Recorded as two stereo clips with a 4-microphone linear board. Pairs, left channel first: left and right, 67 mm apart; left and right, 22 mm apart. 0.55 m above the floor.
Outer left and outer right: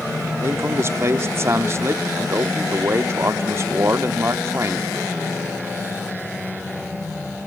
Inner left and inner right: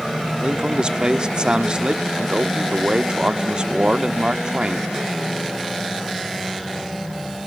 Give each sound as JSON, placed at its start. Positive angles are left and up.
{"t": 0.4, "sound": "a man speaking", "side_deg": -40, "distance_m": 0.8}